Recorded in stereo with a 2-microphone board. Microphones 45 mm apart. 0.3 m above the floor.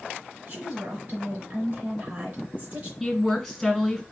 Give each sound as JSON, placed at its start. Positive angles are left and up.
{"t": 0.5, "sound": "a woman speaking", "side_deg": -45, "distance_m": 3.0}
{"t": 3.0, "sound": "a woman speaking", "side_deg": -5, "distance_m": 1.6}